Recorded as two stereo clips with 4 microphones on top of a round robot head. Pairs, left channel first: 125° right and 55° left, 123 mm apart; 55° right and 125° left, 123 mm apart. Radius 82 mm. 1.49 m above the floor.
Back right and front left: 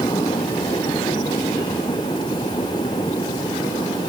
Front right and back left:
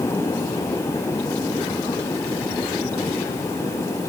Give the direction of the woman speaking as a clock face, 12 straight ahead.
No woman speaking in this recording.